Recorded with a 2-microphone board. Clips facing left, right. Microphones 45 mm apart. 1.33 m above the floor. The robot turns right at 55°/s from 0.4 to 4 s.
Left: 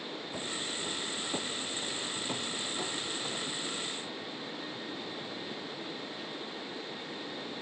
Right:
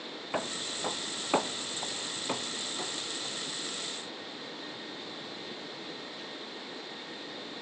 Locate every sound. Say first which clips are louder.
0.3 s footsteps: right 5 dB; 60° right (ahead or behind); by 3.5 s 30° left (ahead or behind)